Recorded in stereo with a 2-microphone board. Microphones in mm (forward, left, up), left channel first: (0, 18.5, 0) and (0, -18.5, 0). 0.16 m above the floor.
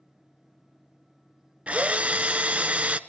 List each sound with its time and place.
1.7 s a drill: 35° right (ahead or behind), 0.7 m